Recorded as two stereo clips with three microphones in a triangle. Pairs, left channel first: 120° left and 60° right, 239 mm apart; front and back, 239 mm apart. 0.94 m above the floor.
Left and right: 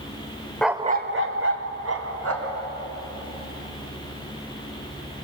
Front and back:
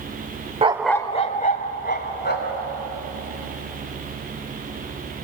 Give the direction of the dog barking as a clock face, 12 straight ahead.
5 o'clock.